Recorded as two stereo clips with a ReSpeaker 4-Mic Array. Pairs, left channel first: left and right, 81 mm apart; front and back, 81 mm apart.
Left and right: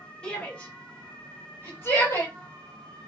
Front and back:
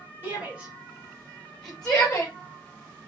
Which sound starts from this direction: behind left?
A shout, at 0.2 s.